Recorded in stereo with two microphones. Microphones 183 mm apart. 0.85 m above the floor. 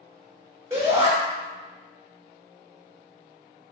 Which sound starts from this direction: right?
A shout, at 0.7 s.